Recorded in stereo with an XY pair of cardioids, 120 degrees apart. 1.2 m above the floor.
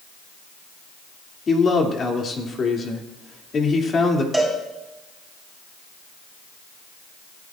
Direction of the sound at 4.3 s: 5° right.